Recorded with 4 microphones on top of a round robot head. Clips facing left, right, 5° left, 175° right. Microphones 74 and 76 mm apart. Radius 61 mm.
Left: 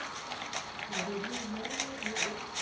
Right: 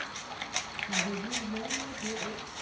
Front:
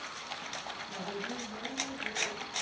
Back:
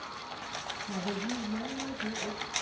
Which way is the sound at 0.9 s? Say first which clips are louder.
Right 2 dB, back 5 dB; 145° right.